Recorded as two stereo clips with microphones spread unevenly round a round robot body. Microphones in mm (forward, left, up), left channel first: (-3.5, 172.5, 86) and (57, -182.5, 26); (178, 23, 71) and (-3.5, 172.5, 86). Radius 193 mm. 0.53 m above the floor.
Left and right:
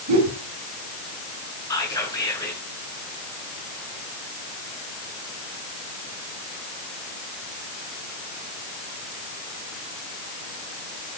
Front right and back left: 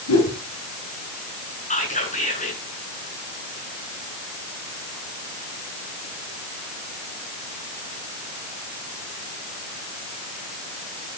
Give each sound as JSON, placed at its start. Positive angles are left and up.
{"t": 0.1, "sound": "a whoosh", "azimuth_deg": -40, "distance_m": 6.0}
{"t": 1.7, "sound": "whispering", "azimuth_deg": 20, "distance_m": 8.0}